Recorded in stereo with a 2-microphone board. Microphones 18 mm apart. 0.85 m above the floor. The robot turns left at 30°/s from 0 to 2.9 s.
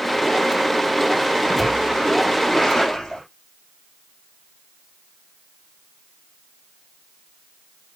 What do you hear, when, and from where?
1.4 s a splash: 170° left, 6.5 m; by 3.2 s 130° left, 6.5 m